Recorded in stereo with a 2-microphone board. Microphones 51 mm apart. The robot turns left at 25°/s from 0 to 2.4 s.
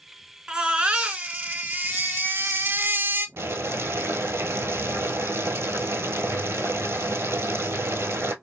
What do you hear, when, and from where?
0.5 s a baby crying: 20° right, 0.7 m; by 3.3 s 70° right, 0.7 m
3.4 s boiling: 60° right (ahead or behind), 0.8 m